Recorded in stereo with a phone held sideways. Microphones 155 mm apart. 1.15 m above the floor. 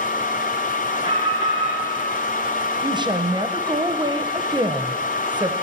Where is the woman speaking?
30° right (ahead or behind), 0.8 m.